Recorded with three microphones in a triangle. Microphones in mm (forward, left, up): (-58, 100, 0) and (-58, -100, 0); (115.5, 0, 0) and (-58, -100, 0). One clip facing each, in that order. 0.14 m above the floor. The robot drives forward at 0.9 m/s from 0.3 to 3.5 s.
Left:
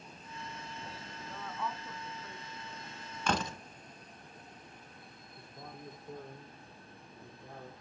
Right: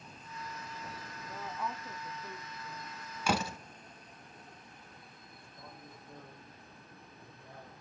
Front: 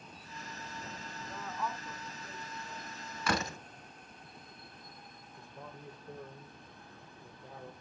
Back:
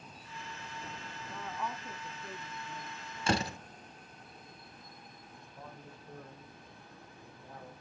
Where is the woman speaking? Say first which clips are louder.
Even, even; 40° right, 1.0 m; by 2.9 s 170° right, 1.6 m.